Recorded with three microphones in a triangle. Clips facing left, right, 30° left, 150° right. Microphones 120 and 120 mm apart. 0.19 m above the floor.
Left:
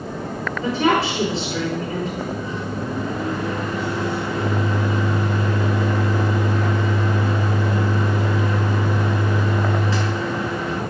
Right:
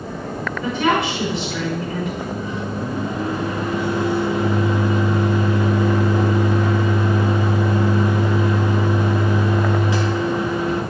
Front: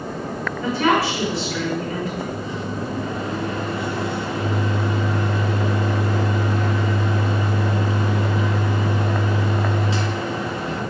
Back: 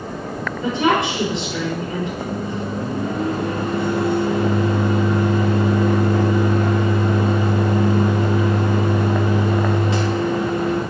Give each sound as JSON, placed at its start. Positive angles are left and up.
{"t": 0.6, "sound": "a woman speaking", "azimuth_deg": 145, "distance_m": 4.0}
{"t": 2.2, "sound": "a microwave", "azimuth_deg": -160, "distance_m": 2.0}